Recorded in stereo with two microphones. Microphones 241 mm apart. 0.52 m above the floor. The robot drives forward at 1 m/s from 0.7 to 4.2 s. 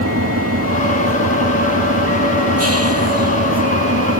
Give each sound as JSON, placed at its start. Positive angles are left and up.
{"t": 0.0, "sound": "an engine running", "side_deg": -75}